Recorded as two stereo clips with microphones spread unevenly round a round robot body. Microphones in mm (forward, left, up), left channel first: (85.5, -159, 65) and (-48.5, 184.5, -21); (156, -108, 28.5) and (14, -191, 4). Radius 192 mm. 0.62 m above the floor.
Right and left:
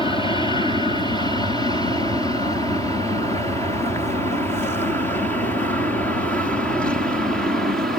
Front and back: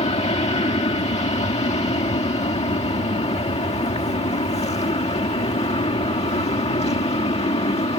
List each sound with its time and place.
0.0 s an aircraft: 20° left; by 8.0 s 45° left